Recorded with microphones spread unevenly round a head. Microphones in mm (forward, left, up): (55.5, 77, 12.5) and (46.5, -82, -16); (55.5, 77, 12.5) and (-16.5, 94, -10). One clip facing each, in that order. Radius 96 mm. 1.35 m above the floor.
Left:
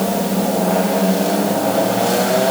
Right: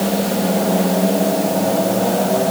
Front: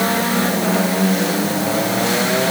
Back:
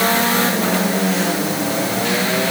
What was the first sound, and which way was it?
Only background noise.